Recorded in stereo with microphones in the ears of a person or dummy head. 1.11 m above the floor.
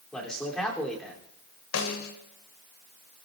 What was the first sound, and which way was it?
A man speaking, 10° left (ahead or behind).